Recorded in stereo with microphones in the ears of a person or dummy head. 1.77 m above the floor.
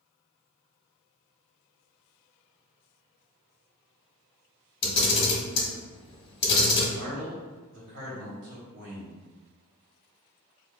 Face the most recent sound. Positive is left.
turn(degrees=-65)  # may be behind; listen again after turning